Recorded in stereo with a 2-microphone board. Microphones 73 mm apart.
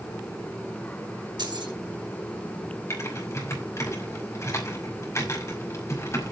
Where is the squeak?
I don't hear a squeak.